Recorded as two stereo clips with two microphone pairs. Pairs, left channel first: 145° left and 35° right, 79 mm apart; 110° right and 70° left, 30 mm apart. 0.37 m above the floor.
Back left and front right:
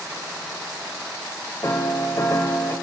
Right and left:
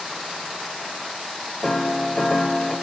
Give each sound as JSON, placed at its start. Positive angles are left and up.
{"t": 1.6, "sound": "a piano", "azimuth_deg": 180, "distance_m": 1.7}